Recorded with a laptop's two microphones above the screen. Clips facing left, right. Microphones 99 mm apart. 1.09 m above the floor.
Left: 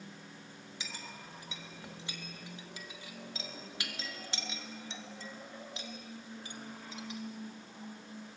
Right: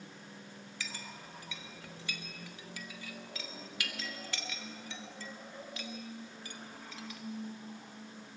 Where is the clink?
25° left (ahead or behind), 1.5 m.